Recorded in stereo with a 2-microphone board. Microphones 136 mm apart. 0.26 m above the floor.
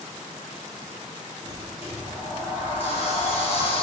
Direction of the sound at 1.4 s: 50° left (ahead or behind).